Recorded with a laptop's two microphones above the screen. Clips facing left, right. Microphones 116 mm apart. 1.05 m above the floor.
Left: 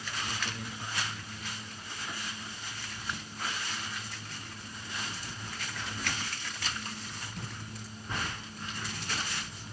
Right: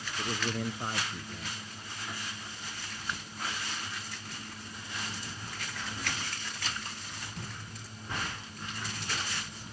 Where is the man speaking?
55° right (ahead or behind).